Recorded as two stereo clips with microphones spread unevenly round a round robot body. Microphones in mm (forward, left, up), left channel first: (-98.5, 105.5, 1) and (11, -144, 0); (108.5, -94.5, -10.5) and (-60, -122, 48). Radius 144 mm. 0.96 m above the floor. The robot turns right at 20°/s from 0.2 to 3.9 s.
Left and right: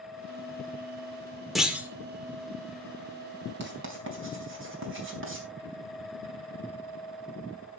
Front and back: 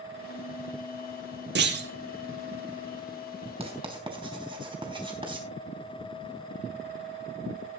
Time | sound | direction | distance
1.6 | a clunk | 155° right | 2 m
3.6 | writing | 115° right | 4 m